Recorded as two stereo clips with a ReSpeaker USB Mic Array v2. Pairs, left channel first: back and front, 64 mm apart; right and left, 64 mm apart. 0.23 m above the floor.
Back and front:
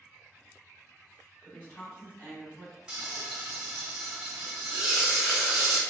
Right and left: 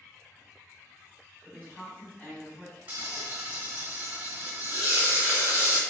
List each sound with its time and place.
1.4 s a woman speaking: 135° right, 1.9 m
2.9 s frying: 60° left, 0.9 m